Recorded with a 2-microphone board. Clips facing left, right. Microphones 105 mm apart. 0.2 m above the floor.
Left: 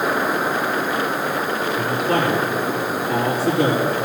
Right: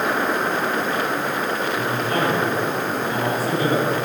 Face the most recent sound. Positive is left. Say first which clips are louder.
# left 5 dB
turn(degrees=65)  # may be behind; listen again after turning